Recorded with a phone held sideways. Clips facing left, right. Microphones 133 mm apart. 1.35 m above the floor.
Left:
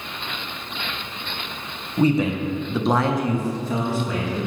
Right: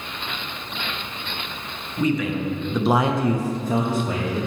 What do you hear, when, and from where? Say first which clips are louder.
2.0 s a man speaking: left 3 dB; 35° left (ahead or behind), 0.9 m; by 4.5 s 55° right (ahead or behind), 1.2 m